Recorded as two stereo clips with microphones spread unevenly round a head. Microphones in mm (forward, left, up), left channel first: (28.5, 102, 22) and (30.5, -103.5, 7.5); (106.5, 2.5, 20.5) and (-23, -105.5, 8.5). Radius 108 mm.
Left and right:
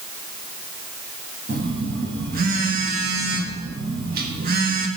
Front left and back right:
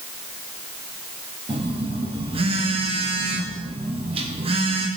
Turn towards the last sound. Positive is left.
turn(degrees=-100)